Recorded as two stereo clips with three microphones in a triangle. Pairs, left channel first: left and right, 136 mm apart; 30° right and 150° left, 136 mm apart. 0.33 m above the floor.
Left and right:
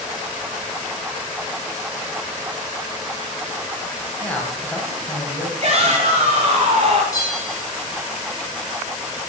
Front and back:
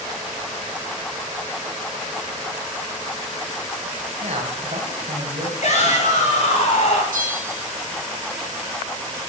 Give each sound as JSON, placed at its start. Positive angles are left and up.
{"t": 4.2, "sound": "a man speaking", "azimuth_deg": 170, "distance_m": 1.5}
{"t": 5.6, "sound": "a shout", "azimuth_deg": -55, "distance_m": 1.9}
{"t": 7.1, "sound": "a bell", "azimuth_deg": 155, "distance_m": 1.4}